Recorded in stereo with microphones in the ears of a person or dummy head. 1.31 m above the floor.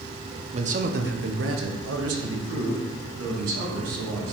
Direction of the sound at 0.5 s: 25° right (ahead or behind).